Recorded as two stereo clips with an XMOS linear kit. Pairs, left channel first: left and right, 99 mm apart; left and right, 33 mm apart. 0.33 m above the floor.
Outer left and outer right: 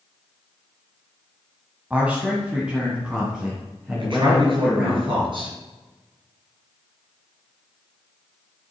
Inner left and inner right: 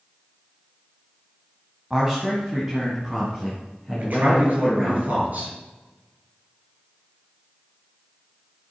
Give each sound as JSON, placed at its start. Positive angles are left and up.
{"t": 1.9, "sound": "a man speaking", "side_deg": -15, "distance_m": 1.9}
{"t": 4.0, "sound": "a man speaking", "side_deg": -50, "distance_m": 5.5}